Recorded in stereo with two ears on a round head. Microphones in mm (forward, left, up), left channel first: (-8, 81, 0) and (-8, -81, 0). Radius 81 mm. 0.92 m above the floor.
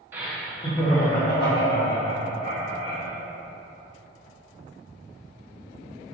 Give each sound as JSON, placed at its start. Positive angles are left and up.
{"t": 0.1, "sound": "laughter", "side_deg": -15, "distance_m": 1.1}